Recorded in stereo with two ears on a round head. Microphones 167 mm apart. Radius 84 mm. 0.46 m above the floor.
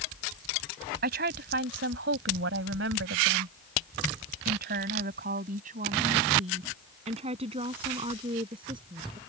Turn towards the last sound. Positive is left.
turn(degrees=-25)  # may be behind; listen again after turning